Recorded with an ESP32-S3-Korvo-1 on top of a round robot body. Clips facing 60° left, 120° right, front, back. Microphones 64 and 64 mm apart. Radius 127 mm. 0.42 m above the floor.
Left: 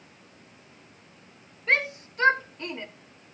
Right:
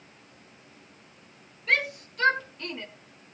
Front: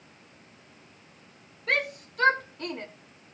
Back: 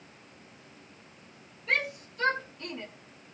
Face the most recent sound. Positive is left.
turn(degrees=-10)